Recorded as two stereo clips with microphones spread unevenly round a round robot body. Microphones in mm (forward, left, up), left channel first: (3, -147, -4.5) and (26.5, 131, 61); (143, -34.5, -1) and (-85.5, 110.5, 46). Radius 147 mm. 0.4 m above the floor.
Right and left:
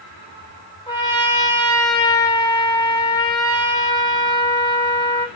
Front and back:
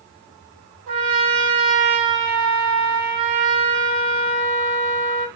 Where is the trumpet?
160° right, 3.5 m.